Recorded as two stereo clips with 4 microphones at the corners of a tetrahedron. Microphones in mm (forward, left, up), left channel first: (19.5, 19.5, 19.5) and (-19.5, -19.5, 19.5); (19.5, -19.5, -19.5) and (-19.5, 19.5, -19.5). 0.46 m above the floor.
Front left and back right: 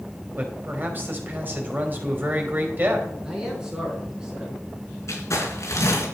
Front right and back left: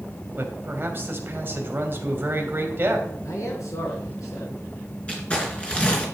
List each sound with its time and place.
0.4 s a man speaking: straight behind, 3 m
3.2 s a man speaking: 55° right, 6 m
5.1 s crumpling: 20° left, 4 m